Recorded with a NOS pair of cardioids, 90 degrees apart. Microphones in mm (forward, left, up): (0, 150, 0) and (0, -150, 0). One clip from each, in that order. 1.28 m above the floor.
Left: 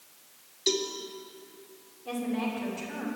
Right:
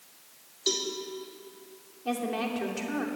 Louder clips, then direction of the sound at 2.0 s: Right 2 dB; 65° right.